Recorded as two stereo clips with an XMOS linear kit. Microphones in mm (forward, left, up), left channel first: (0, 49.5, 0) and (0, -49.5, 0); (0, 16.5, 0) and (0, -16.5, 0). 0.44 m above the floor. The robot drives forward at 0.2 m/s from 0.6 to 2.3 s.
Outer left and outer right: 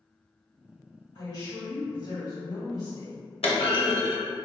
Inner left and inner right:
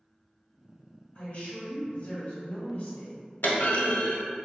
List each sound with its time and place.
1.1 s a woman speaking: 55° left (ahead or behind), 1.7 m
3.4 s a clunk: 80° left, 0.6 m